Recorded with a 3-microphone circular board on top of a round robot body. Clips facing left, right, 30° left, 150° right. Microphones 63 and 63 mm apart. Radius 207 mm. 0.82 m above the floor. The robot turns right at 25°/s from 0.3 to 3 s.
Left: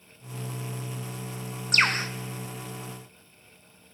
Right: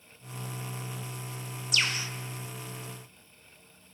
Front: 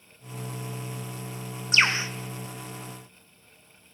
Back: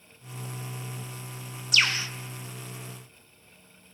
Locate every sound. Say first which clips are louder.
1.7 s a bird: left 7 dB, front 3 dB; 80° left, 1.0 m; by 2.1 s 90° left, 1.0 m